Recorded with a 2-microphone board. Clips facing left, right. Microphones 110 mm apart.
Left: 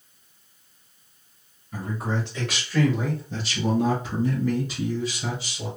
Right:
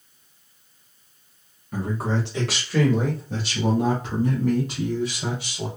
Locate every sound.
1.7 s a man speaking: 80° right, 1.2 m; by 5.7 s 70° right (ahead or behind), 4 m